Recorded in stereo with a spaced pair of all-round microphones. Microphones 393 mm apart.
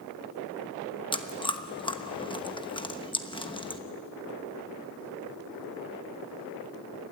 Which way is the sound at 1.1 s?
10° left (ahead or behind).